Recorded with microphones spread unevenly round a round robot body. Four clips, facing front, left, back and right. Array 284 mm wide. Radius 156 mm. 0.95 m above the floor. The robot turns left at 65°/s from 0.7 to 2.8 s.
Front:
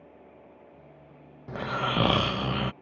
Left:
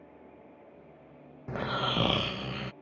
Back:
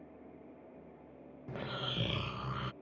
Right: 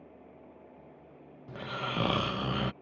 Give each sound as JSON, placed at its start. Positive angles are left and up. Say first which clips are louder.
{"t": 1.5, "sound": "snoring", "louder": "left 5 dB, front 12 dB", "azimuth_deg": 50}